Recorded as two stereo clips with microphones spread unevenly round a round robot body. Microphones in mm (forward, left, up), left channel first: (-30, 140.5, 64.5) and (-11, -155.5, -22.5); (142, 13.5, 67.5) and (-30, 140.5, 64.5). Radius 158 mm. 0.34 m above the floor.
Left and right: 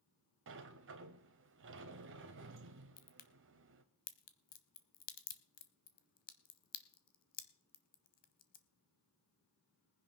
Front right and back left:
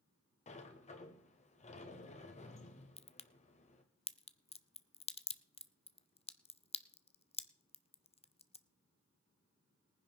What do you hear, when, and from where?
0.5 s a sliding door: 90° right, 1.1 m
3.0 s a crack: 30° left, 0.8 m